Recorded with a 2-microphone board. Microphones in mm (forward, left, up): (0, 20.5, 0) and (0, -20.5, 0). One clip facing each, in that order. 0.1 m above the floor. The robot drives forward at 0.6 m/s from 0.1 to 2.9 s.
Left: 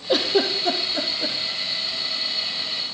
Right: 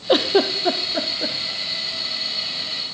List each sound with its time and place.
0.1 s a giggle: 50° right (ahead or behind), 0.5 m; by 1.4 s 20° right (ahead or behind), 1.2 m